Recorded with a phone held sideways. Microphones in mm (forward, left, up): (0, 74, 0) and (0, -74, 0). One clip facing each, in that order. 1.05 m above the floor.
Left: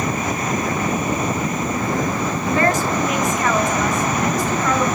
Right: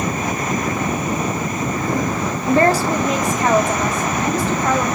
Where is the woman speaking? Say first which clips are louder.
Right 4 dB; 35° right (ahead or behind), 1.0 m; by 4.8 s 30° right (ahead or behind), 3 m.